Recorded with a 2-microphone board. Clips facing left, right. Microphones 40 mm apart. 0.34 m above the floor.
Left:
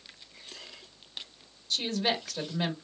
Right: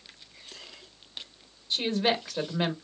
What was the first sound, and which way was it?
A woman speaking, 20° right (ahead or behind).